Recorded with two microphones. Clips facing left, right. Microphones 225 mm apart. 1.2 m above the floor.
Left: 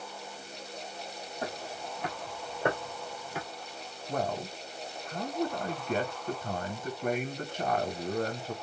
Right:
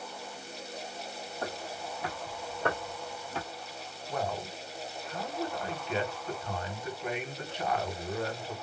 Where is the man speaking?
45° left (ahead or behind), 0.9 m.